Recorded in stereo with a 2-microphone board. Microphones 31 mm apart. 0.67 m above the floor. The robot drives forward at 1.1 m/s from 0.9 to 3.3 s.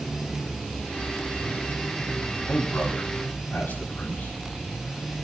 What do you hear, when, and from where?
2.5 s a man speaking: 70° left (ahead or behind), 5.5 m; by 5.1 s 65° left (ahead or behind), 6 m